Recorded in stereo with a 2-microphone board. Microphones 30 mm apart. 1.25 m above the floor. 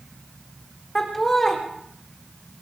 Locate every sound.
0.9 s laughter: 10° left (ahead or behind), 4 m